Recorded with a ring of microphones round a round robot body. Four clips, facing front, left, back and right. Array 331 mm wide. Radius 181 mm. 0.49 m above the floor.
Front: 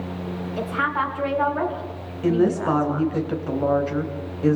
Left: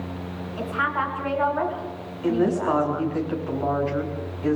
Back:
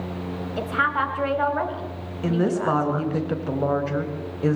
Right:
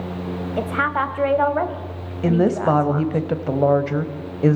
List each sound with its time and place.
0.6 s a woman speaking: 100° right, 3 m
2.2 s a woman speaking: 95° right, 3 m